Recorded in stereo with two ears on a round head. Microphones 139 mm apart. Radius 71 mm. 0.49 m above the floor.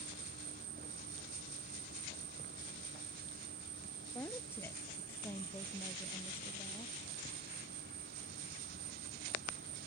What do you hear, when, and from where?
0.0 s an insect: 65° right (ahead or behind)
4.1 s a woman speaking: 15° left (ahead or behind)